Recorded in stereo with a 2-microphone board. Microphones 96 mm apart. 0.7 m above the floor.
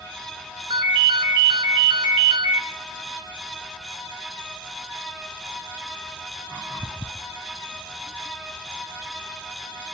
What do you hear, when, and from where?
0.7 s a ringtone: 80° right, 1.9 m